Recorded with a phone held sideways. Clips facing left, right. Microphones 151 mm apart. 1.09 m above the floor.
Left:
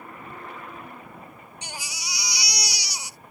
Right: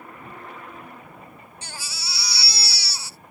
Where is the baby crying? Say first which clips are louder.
Left 2 dB; 20° left (ahead or behind).